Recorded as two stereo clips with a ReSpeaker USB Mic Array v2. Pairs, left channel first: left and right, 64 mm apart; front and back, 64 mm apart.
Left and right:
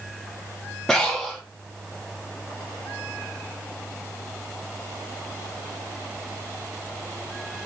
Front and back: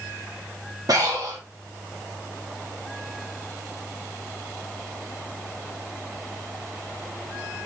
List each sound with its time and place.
0.9 s breathing: 170° left, 1.0 m